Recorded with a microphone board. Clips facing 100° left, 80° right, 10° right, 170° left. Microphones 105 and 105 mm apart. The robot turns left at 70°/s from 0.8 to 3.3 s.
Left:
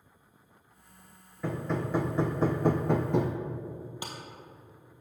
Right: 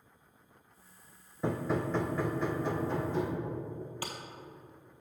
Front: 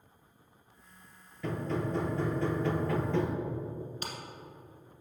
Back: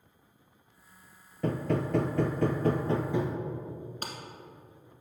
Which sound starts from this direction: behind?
A clap, at 4.0 s.